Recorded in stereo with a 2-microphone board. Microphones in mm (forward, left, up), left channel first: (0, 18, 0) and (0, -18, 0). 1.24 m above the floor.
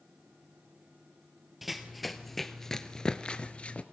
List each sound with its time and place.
1.6 s running footsteps: 5° right (ahead or behind), 1.8 m; by 3.8 s 35° left (ahead or behind), 1.4 m